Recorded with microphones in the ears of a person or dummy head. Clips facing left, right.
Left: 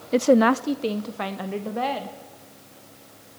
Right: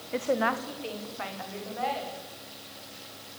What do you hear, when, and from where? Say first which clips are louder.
0.1 s a woman speaking: left 11 dB; 60° left (ahead or behind), 0.5 m; by 2.2 s 70° left (ahead or behind), 3 m